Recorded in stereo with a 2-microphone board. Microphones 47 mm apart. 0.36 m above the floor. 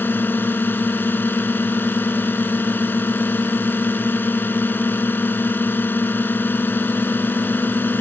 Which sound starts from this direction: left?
A drone, at 0.0 s.